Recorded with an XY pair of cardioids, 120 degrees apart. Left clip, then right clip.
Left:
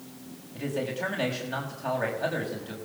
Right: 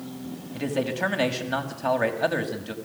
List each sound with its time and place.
0.5 s a man speaking: 35° right, 6 m